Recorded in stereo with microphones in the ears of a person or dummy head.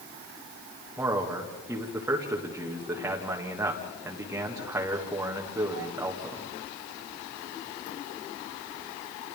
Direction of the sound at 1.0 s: 15° right (ahead or behind).